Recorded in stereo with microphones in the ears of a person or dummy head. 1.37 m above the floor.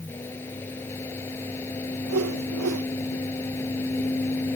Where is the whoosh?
80° right.